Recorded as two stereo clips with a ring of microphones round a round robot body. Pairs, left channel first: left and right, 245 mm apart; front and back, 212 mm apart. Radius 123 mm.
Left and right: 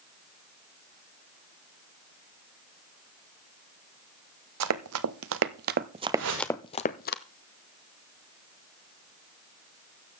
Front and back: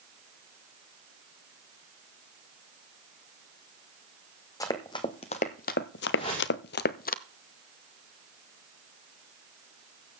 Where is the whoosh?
65° right, 5.5 m.